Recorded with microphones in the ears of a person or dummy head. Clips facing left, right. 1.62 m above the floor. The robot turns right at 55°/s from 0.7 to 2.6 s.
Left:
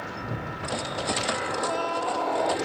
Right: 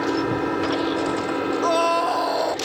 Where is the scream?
105° right; by 2.5 s 55° right.